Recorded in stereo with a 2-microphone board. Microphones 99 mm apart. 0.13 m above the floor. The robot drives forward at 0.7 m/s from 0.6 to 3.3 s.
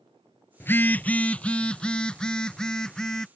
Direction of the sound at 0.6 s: 25° left (ahead or behind).